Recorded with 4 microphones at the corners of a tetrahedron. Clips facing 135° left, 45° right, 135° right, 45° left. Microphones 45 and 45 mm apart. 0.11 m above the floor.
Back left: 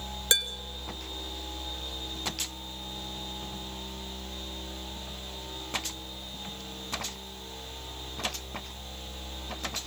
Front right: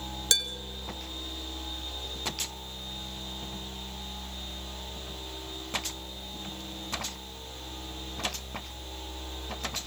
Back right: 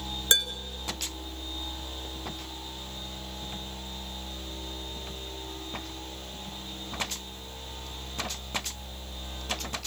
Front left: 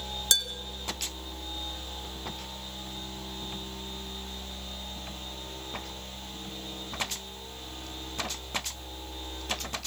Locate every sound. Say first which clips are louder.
0.3 s dishes clattering: back left 2 dB, back right 3 dB; 170° right, 1.0 m